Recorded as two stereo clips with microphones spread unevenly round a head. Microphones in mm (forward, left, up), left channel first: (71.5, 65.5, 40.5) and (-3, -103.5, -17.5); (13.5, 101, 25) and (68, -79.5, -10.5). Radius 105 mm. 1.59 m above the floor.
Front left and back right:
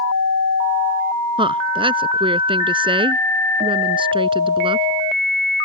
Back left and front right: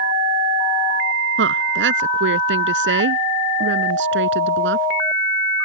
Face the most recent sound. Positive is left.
turn(degrees=-50)